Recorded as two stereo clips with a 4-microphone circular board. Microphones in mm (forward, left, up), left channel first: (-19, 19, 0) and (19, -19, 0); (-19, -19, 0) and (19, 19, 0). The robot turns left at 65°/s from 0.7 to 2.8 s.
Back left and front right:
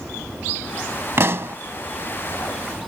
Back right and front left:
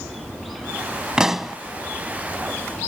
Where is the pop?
25° right; by 1.6 s 50° right.